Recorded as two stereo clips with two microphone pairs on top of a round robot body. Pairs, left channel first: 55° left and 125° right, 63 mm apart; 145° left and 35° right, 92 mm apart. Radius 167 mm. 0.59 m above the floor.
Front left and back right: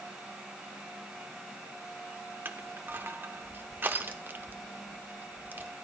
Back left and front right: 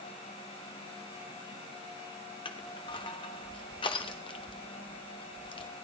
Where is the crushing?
175° left, 0.8 m.